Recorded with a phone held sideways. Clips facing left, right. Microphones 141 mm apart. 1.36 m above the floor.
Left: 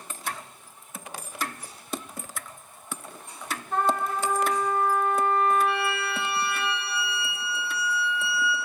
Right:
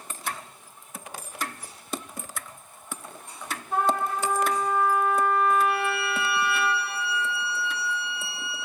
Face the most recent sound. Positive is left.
turn(degrees=-45)  # may be behind; listen again after turning